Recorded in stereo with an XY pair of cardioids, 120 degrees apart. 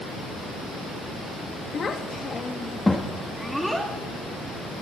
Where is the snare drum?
I don't hear a snare drum.